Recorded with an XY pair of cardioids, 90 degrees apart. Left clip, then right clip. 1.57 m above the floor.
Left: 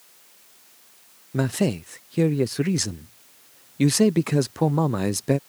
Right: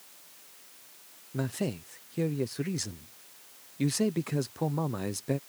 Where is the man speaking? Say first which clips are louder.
Left 9 dB; 65° left.